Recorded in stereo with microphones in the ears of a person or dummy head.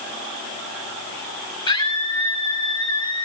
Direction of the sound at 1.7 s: 20° left (ahead or behind).